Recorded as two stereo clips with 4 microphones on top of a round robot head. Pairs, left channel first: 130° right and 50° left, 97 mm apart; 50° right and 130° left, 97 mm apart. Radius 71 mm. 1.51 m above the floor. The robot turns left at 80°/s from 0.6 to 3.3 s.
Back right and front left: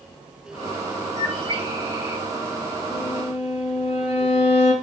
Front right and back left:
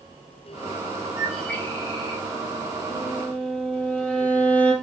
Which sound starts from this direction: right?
A violin, at 2.9 s.